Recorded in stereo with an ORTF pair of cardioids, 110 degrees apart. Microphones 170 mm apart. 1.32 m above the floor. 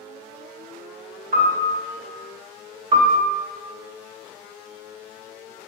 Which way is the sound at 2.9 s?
35° right.